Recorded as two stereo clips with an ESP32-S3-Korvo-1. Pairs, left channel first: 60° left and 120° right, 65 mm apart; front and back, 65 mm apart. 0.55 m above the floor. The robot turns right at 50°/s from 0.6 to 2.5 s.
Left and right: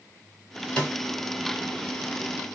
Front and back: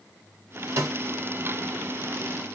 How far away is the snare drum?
About 2.5 m.